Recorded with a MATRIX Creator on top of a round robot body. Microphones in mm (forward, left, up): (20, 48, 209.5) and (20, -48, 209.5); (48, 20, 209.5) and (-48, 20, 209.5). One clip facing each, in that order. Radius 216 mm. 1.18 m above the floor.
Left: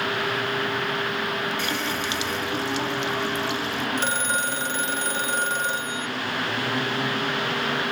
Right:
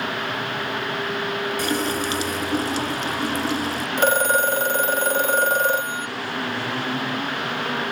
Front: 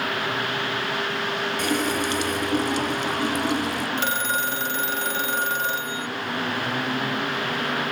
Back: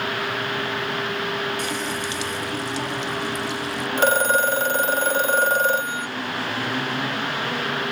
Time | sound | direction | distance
1.6 | a running tap | 40° right | ?
4.0 | a phone ringing | 130° right | ?